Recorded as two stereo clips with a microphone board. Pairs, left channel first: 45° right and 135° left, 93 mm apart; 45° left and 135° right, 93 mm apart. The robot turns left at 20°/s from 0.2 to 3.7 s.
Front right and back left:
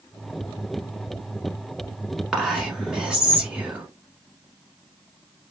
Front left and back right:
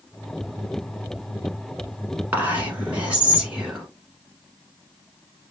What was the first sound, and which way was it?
Whispering, 160° right.